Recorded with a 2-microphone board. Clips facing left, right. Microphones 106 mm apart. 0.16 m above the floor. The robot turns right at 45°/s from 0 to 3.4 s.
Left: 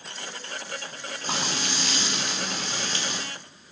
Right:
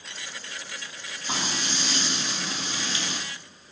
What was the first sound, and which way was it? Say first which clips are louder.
Frying: left 1 dB; 60° left.